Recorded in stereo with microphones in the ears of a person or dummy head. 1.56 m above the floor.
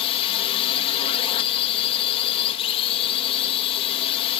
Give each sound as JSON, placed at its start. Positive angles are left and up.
{"t": 0.0, "sound": "a drone", "side_deg": 30}